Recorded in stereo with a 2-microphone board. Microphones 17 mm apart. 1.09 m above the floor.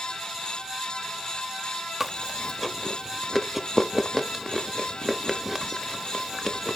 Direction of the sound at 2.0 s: 20° right (ahead or behind).